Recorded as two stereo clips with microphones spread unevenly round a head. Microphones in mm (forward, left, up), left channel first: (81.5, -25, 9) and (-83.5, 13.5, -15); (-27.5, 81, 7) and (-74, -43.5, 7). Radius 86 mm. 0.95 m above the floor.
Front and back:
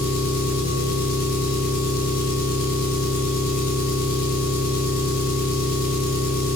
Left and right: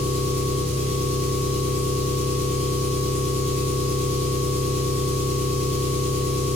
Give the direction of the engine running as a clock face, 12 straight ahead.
2 o'clock.